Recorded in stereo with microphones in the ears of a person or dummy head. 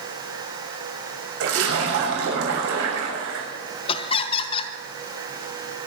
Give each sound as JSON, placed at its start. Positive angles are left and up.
{"t": 1.4, "sound": "a splash", "side_deg": -80, "distance_m": 6.5}
{"t": 3.9, "sound": "laughter", "side_deg": 35, "distance_m": 1.2}